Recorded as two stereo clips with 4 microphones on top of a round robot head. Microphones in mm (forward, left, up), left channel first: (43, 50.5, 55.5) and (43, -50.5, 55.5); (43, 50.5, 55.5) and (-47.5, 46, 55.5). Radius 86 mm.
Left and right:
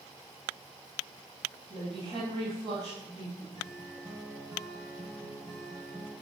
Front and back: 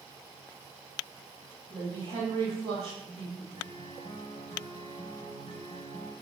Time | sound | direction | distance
1.7 | a woman speaking | 140° right | 3 m
3.5 | a guitar | 45° right | 4 m